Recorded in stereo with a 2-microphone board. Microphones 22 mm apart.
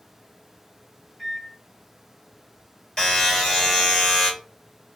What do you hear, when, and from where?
1.2 s a microwave: 30° left (ahead or behind), 2 m
3.0 s a buzzer: 30° left (ahead or behind), 2 m